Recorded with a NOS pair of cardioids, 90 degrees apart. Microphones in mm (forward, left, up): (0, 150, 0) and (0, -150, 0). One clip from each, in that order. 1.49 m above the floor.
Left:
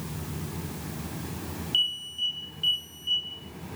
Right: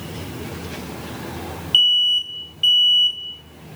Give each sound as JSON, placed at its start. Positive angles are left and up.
{"t": 1.7, "sound": "an alarm", "azimuth_deg": -60, "distance_m": 7.5}